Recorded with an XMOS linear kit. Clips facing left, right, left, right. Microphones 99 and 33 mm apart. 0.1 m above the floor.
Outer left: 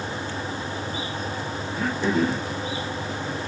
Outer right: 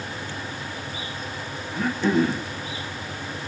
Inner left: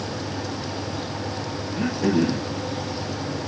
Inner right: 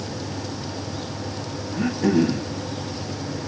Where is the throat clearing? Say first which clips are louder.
Outer right 2 dB, inner right 2 dB; centre (ahead or behind), 2.5 m.